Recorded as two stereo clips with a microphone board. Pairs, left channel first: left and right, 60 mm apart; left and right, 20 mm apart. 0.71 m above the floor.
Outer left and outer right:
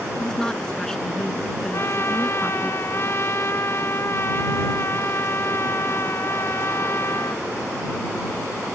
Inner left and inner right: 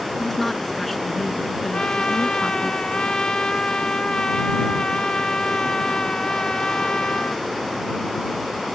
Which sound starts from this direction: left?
A trumpet, at 1.7 s.